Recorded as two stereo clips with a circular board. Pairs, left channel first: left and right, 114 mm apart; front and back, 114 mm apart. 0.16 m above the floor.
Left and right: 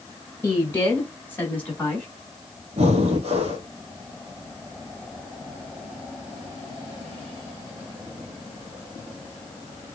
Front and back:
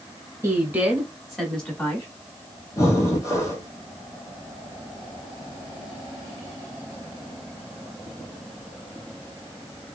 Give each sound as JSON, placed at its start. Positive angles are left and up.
{"t": 0.4, "sound": "a woman speaking", "azimuth_deg": 145, "distance_m": 1.3}
{"t": 2.8, "sound": "breathing", "azimuth_deg": -65, "distance_m": 1.2}